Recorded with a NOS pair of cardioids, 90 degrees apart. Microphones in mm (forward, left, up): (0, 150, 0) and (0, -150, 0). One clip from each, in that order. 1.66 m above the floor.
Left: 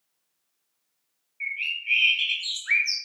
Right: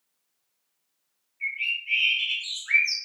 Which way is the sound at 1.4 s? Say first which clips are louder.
Right 1 dB; 30° left.